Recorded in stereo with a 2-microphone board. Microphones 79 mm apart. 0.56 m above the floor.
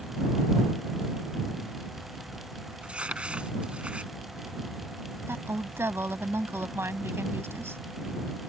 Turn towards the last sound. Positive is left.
turn(degrees=-30)  # may be behind; listen again after turning